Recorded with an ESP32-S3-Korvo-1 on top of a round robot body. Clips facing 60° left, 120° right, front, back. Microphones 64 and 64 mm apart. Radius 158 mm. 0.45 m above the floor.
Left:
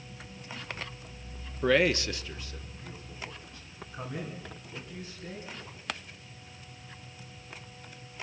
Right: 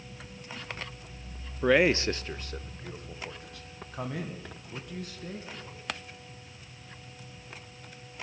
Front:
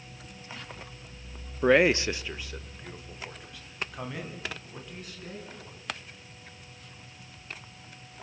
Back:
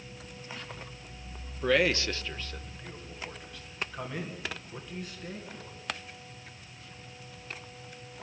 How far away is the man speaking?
About 0.9 m.